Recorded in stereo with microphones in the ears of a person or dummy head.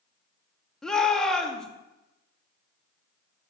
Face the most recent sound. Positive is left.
turn(degrees=5)  # may be behind; listen again after turning